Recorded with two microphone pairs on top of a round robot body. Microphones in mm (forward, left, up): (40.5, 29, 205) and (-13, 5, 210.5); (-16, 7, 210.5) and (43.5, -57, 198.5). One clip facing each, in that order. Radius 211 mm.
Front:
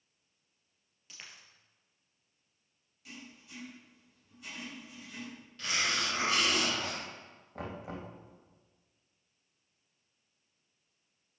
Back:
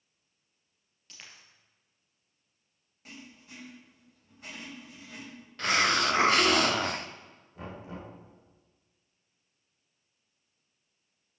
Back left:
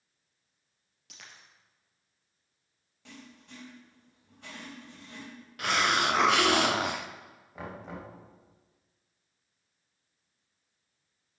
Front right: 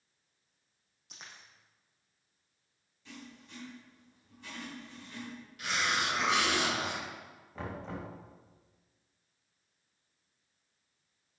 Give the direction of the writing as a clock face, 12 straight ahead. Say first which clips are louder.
Back 2 dB, even; 7 o'clock.